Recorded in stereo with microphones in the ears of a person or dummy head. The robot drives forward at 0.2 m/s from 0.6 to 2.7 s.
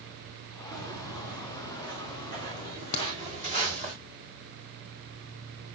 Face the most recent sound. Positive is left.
turn(degrees=30)  # may be behind; listen again after turning